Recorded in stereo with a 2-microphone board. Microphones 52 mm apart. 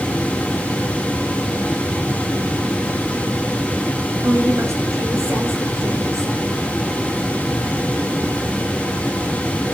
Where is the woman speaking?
65° right (ahead or behind), 4.5 m.